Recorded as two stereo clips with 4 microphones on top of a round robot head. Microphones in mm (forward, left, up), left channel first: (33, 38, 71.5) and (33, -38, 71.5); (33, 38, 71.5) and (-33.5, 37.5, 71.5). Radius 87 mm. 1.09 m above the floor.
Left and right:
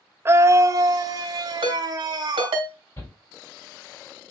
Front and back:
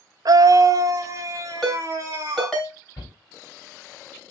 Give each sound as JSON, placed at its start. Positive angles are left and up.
{"t": 0.2, "sound": "a scream", "azimuth_deg": -150, "distance_m": 0.7}
{"t": 1.6, "sound": "a ringtone", "azimuth_deg": -80, "distance_m": 3.0}
{"t": 3.0, "sound": "a shout", "azimuth_deg": 40, "distance_m": 6.5}